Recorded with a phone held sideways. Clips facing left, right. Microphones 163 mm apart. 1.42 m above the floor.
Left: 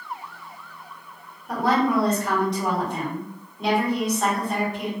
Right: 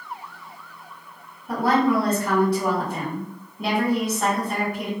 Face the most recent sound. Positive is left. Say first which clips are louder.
# right 1 dB
turn(degrees=-5)  # may be behind; listen again after turning